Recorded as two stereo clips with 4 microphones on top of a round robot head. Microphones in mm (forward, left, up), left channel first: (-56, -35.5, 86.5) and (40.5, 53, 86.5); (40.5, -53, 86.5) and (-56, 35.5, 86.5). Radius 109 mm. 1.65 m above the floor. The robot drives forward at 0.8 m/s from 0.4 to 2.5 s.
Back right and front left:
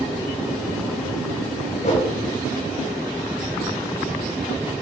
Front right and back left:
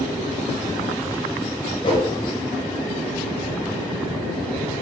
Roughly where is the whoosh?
Right.